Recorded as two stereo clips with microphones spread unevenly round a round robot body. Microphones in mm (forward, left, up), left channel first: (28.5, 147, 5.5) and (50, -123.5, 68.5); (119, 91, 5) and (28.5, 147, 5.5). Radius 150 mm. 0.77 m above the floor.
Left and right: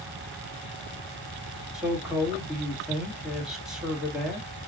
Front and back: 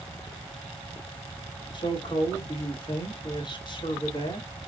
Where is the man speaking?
5° left, 2 m.